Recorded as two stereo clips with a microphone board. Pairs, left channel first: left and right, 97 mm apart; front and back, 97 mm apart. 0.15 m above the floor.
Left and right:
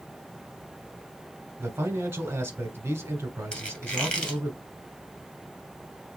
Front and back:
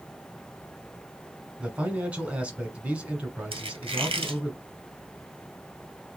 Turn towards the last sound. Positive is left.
turn(degrees=170)